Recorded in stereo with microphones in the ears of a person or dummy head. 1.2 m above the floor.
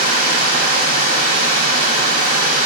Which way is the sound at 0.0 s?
50° right (ahead or behind).